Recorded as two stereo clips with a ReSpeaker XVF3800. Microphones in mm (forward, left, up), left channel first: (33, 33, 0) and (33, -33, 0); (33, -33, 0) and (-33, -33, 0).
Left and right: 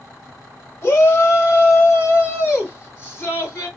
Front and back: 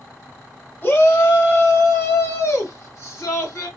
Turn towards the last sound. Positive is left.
turn(degrees=35)